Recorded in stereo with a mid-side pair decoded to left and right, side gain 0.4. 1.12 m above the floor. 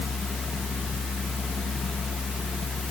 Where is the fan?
30° left, 0.8 m.